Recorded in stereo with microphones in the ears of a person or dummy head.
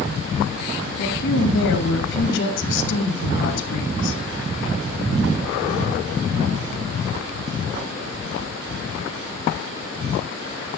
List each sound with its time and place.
1.0 s a woman speaking: 60° left (ahead or behind), 7 m